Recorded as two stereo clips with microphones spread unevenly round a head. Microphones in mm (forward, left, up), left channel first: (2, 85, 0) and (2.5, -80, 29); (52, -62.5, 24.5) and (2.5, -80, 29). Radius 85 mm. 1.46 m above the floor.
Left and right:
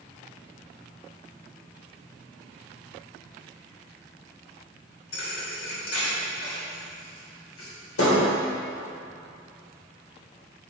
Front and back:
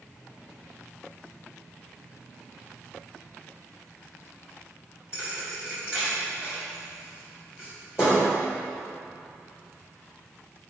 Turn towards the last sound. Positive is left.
turn(degrees=95)